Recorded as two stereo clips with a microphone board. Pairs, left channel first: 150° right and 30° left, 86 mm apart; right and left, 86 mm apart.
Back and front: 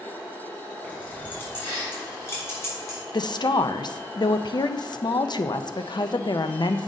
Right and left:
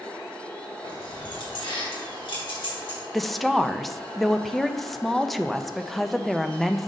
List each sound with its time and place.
0.8 s keys jangling: 80° right, 3 m; by 3.0 s 95° right, 4 m
3.1 s a woman speaking: straight behind, 0.5 m